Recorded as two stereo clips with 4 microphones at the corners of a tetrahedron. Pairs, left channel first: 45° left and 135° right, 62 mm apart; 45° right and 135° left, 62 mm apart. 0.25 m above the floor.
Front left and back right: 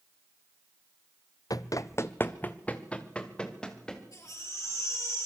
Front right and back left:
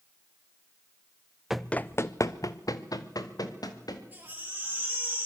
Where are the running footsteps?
50° left, 0.6 m; by 4.0 s 35° right, 3 m.